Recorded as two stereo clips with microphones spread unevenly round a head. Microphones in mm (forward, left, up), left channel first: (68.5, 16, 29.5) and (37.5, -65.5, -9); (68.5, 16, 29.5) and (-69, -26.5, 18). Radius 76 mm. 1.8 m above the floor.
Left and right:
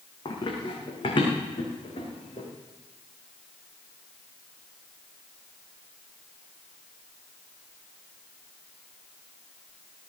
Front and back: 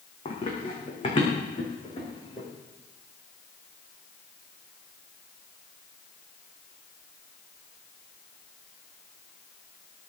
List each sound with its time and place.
0.2 s running footsteps: 65° left, 4 m; by 2.5 s 75° left, 6.5 m